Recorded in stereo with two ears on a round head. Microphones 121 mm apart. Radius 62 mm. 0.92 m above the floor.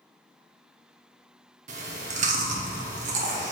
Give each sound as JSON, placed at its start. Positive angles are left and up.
{"t": 1.7, "sound": "chewing", "side_deg": -60, "distance_m": 0.9}